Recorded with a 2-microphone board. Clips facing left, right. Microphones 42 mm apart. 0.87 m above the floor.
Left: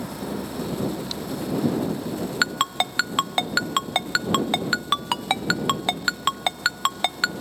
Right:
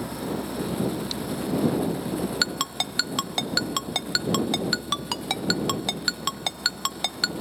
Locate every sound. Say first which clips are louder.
2.4 s a ringtone: left 5 dB; 30° left (ahead or behind)